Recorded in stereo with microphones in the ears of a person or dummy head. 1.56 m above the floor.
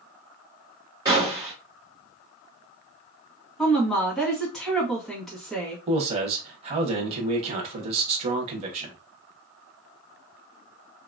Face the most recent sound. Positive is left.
turn(degrees=-35)  # may be behind; listen again after turning